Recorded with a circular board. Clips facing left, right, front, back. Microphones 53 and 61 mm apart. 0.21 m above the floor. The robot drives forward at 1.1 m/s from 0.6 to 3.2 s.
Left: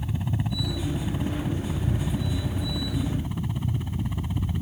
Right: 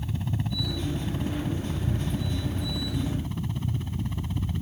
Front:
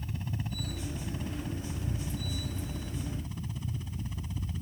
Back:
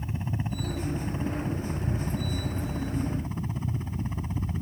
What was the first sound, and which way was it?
A helicopter, 155° left.